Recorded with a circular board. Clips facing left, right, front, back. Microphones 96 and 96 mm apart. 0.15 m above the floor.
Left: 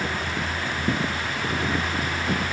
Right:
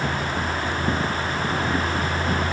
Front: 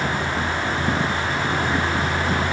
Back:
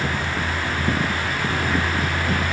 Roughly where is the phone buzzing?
I don't hear a phone buzzing.